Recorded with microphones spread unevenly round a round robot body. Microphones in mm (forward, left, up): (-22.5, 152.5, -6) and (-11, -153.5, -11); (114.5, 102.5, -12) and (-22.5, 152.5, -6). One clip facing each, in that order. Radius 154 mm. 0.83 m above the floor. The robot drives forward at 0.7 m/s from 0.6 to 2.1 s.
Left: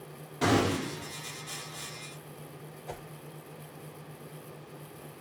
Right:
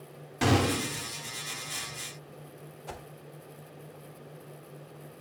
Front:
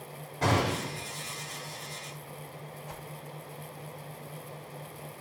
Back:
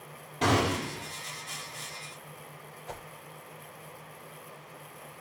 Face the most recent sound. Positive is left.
turn(degrees=-150)